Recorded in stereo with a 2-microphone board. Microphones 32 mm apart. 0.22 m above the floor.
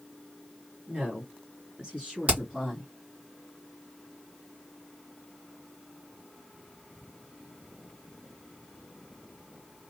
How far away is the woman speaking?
About 2 m.